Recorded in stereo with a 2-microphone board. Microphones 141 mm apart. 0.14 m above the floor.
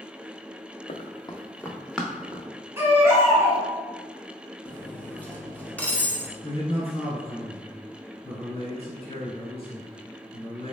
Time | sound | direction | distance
0.9 | running footsteps | 55° left (ahead or behind) | 0.6 m
2.8 | a baby crying | 20° right (ahead or behind) | 1.2 m
4.7 | cutlery clinking | 10° left (ahead or behind) | 0.6 m
6.4 | a man speaking | 45° left (ahead or behind) | 1.5 m